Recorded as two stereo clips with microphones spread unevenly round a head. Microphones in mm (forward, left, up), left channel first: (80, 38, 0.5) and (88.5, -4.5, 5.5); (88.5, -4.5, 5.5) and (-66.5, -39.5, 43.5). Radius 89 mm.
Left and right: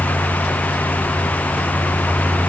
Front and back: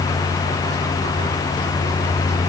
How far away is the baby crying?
No baby crying in this recording.